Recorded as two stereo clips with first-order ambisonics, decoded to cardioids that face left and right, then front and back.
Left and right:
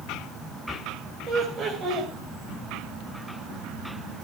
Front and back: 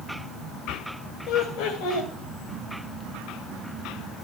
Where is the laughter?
35° right, 2.5 m.